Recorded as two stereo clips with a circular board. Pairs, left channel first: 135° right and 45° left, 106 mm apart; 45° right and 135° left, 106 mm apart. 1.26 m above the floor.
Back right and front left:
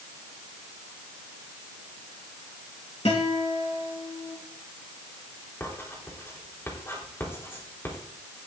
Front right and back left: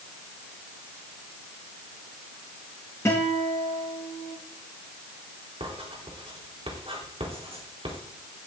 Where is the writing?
155° left, 4 m.